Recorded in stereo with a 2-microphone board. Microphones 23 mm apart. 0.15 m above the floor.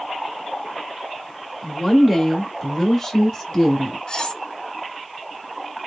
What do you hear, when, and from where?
1.6 s a woman speaking: 15° right (ahead or behind), 1.4 m; by 4.0 s 15° left (ahead or behind), 1.6 m
4.1 s cutlery clinking: 35° left (ahead or behind), 0.8 m